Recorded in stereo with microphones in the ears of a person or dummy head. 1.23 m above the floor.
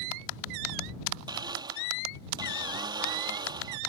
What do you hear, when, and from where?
1.3 s a blender: 20° right (ahead or behind)